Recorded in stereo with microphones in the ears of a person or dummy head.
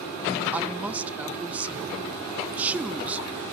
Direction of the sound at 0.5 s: Centre (ahead or behind).